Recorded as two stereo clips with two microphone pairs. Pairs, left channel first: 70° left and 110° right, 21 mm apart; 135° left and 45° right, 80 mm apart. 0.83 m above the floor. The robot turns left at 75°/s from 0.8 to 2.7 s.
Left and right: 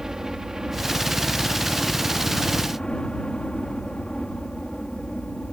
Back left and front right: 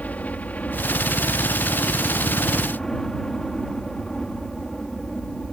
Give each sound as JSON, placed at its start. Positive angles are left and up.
{"t": 0.0, "sound": "a helicopter", "azimuth_deg": -165}